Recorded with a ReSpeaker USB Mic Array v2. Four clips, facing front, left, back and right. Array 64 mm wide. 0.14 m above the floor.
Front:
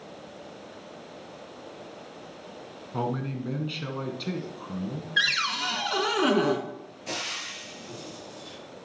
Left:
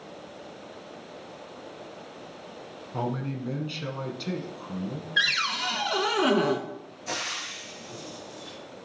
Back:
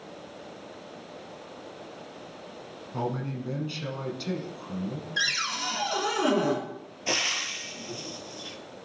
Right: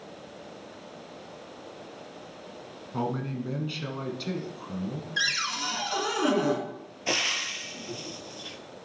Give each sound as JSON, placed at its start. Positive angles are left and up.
{"t": 2.9, "sound": "a man speaking", "azimuth_deg": 0, "distance_m": 1.3}
{"t": 5.2, "sound": "a cupboard door", "azimuth_deg": 40, "distance_m": 1.3}
{"t": 7.1, "sound": "frying", "azimuth_deg": -120, "distance_m": 1.2}